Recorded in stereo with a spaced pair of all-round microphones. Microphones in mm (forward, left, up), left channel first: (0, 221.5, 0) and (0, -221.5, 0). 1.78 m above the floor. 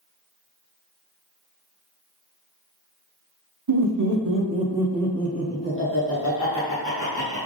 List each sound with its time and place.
3.7 s laughter: 55° right (ahead or behind), 0.8 m; by 7.4 s 45° left (ahead or behind), 1.8 m